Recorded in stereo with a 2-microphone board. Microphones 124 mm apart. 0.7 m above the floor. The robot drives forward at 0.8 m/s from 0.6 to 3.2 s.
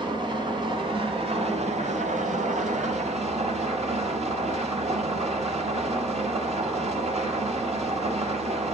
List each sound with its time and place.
0.0 s an engine running: 40° right (ahead or behind), 1.9 m; by 8.7 s 60° right (ahead or behind), 1.4 m